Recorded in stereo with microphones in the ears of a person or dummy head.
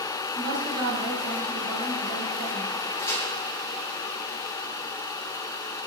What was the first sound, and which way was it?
A woman speaking, 20° right (ahead or behind).